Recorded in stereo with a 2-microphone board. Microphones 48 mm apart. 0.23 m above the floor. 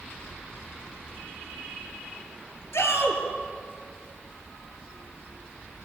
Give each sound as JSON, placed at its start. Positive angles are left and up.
{"t": 2.7, "sound": "a shout", "side_deg": 75, "distance_m": 5.0}